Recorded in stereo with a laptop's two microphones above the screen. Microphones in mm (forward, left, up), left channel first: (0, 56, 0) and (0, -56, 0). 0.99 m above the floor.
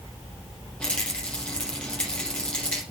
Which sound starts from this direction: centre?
A rattle, at 0.8 s.